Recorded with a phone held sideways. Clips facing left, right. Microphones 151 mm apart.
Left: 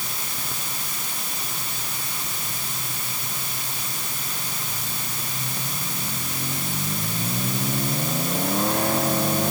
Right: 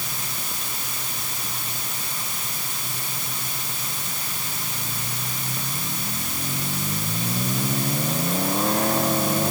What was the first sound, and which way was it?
Only background noise.